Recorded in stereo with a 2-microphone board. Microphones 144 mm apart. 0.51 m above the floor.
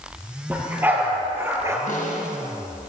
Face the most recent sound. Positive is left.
turn(degrees=70)  # may be behind; listen again after turning